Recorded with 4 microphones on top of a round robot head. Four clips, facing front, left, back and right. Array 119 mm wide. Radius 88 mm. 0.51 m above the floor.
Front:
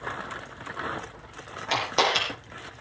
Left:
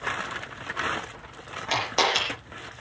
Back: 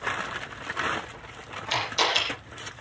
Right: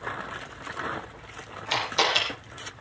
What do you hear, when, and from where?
1.7 s a camera shutter: 40° left, 7.5 m